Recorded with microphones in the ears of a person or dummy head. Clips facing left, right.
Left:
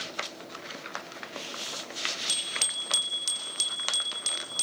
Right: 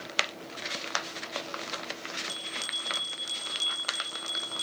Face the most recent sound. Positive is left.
turn(degrees=70)  # may be behind; listen again after turning